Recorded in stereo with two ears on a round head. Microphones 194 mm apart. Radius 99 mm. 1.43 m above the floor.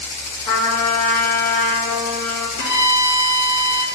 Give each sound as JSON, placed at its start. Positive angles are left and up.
{"t": 0.5, "sound": "a trumpet", "side_deg": 15, "distance_m": 1.1}
{"t": 2.6, "sound": "a violin", "side_deg": 50, "distance_m": 0.8}